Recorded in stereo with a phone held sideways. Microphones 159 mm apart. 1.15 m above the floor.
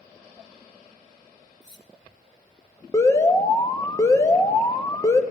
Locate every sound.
1.6 s cutlery clinking: 25° left (ahead or behind), 1.0 m
2.9 s an alarm: 20° left (ahead or behind), 0.9 m